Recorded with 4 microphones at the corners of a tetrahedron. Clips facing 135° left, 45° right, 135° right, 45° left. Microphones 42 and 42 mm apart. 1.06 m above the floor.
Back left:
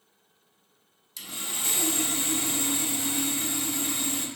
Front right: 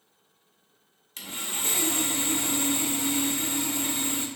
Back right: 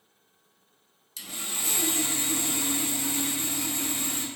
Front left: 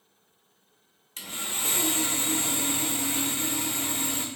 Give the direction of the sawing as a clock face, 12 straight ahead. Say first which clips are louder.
Front right 2 dB, front left 2 dB; 12 o'clock.